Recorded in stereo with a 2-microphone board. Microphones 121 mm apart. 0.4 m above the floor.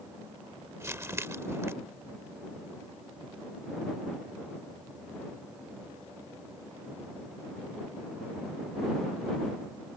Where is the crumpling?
20° right (ahead or behind).